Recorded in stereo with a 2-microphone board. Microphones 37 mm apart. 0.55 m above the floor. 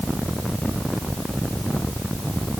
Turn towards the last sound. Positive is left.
No sound to turn to.